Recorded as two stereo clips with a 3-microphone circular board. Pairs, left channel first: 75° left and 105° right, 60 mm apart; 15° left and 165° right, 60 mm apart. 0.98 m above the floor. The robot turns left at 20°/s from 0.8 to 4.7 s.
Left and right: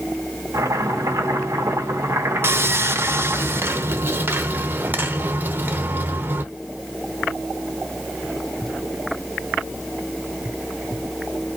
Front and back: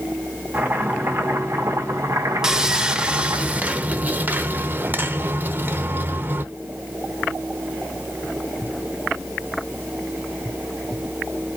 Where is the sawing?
90° right, 0.8 m; by 6.4 s 135° right, 0.8 m.